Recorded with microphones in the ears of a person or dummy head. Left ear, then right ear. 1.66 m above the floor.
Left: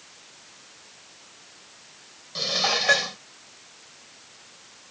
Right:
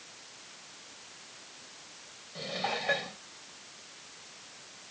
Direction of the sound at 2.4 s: 60° left (ahead or behind).